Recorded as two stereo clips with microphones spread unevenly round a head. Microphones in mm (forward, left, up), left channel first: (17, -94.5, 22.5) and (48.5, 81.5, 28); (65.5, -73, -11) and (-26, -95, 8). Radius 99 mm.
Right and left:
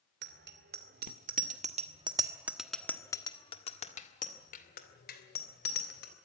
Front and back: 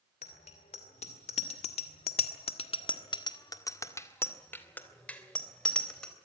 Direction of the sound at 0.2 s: 55° left.